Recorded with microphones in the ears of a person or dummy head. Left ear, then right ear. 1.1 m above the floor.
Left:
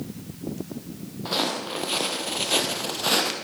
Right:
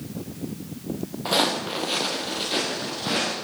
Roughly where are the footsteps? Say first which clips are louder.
Right 4 dB; centre.